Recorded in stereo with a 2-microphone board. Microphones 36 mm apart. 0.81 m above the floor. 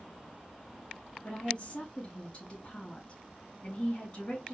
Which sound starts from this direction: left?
A woman speaking, at 1.2 s.